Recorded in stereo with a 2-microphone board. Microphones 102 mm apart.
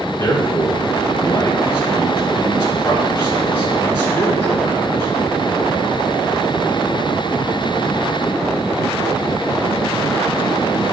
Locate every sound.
0.2 s a man speaking: 25° left (ahead or behind), 1.6 m